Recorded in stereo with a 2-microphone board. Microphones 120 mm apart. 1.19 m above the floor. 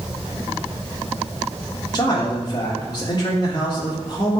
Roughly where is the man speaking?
Left.